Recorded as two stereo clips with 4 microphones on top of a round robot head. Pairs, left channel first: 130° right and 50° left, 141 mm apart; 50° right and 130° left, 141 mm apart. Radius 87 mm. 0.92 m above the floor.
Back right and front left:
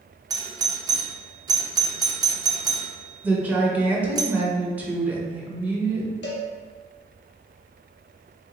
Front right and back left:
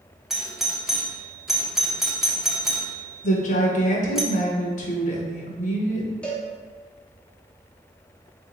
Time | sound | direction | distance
0.3 | a doorbell | 45° left | 0.7 m
3.2 | a woman speaking | 30° right | 0.9 m
6.2 | a cowbell | 130° right | 0.6 m